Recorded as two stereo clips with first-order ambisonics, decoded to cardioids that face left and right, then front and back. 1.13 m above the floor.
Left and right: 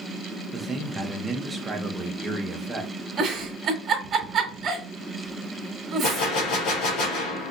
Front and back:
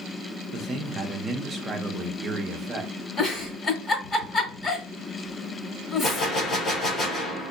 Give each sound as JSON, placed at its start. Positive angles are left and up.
{"t": 0.5, "sound": "a man speaking", "azimuth_deg": -155, "distance_m": 0.7}
{"t": 3.2, "sound": "a giggle", "azimuth_deg": -45, "distance_m": 1.0}
{"t": 6.0, "sound": "a gunshot", "azimuth_deg": 65, "distance_m": 1.7}